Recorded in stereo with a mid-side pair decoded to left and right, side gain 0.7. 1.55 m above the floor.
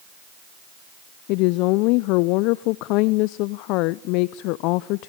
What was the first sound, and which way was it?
A woman speaking, 65° left.